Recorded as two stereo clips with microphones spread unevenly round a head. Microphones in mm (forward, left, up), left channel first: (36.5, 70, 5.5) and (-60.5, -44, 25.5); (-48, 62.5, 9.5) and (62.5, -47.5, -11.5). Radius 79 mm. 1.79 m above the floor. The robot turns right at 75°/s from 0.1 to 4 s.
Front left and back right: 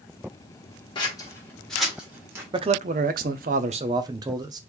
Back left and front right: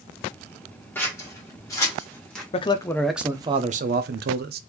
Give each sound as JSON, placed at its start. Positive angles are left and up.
{"t": 0.9, "sound": "scissors", "azimuth_deg": 90, "distance_m": 1.5}
{"t": 2.5, "sound": "a man speaking", "azimuth_deg": 180, "distance_m": 0.5}